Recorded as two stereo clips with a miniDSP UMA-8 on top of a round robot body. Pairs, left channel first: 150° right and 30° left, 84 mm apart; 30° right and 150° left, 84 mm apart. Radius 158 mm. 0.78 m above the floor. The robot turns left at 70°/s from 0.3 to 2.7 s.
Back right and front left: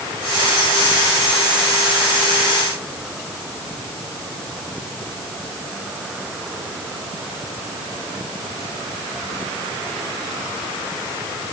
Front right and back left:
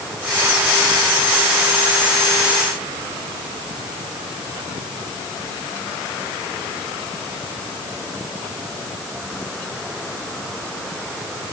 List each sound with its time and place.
Only background noise.